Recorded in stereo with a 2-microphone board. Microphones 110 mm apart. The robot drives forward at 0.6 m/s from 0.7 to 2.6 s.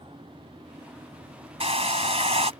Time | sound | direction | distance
1.6 | a hair dryer | 70° right (ahead or behind) | ?